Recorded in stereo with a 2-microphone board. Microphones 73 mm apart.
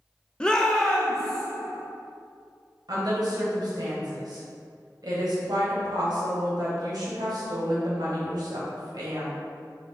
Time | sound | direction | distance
0.4 | a shout | 15° left (ahead or behind) | 0.6 m
2.9 | a woman speaking | 65° right (ahead or behind) | 1.4 m